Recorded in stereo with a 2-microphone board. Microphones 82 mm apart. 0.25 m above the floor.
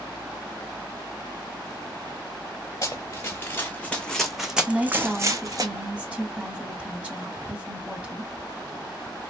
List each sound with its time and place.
2.8 s running footsteps: 35° left (ahead or behind), 1.4 m; by 5.7 s 50° right (ahead or behind), 1.0 m
4.7 s a woman speaking: 15° right (ahead or behind), 1.5 m